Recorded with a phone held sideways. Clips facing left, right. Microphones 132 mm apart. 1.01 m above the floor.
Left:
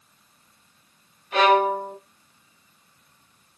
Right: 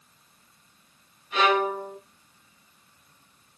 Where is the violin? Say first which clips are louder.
Left 5 dB; 65° left (ahead or behind), 1.8 m.